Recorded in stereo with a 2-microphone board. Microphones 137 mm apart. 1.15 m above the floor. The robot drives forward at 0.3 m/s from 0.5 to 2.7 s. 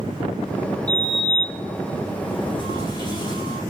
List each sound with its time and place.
0.9 s a sliding door: 50° left (ahead or behind), 0.8 m; by 3.6 s 35° left (ahead or behind), 1.1 m